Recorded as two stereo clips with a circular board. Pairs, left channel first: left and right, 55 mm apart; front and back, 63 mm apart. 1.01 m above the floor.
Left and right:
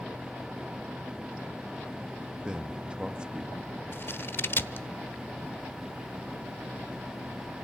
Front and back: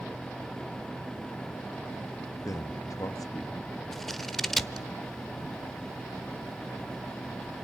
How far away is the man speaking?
About 1.5 m.